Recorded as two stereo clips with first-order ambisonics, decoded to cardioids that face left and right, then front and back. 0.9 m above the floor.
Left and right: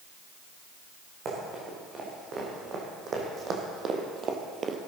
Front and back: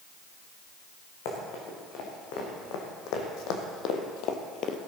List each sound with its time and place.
1.2 s running footsteps: 30° right, 5 m